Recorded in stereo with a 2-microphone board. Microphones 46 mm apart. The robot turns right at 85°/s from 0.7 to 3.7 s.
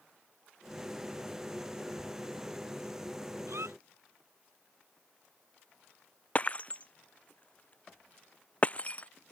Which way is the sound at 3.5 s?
75° right (ahead or behind).